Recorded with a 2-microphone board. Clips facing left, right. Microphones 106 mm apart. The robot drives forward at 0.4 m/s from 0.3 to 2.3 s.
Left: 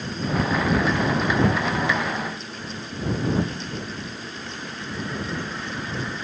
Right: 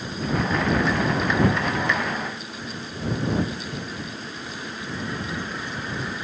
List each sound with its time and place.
Only background noise.